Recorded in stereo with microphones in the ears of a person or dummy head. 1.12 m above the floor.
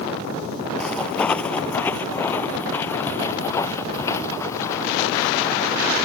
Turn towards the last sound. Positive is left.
turn(degrees=20)  # may be behind; listen again after turning